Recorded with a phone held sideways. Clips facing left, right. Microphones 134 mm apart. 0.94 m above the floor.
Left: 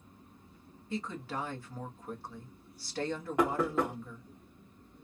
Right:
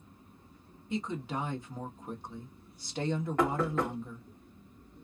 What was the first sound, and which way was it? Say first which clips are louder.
A woman speaking: right 3 dB; 20° right (ahead or behind).